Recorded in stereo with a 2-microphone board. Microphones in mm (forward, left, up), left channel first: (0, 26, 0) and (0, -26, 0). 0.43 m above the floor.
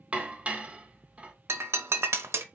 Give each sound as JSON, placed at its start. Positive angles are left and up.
{"t": 0.1, "sound": "dishes clattering", "side_deg": -25, "distance_m": 0.6}
{"t": 1.5, "sound": "breaking glass", "side_deg": -65, "distance_m": 0.5}